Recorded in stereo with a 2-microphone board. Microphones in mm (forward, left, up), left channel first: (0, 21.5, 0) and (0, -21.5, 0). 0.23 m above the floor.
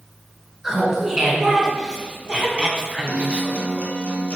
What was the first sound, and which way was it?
Laughter, 15° right (ahead or behind).